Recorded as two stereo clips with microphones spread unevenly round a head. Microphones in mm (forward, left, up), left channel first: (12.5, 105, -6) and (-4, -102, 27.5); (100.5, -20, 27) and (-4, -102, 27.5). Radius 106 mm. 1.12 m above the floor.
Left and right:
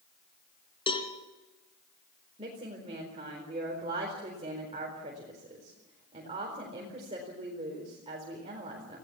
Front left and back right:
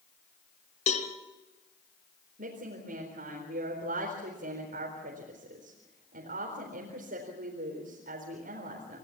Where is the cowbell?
15° left, 3 m.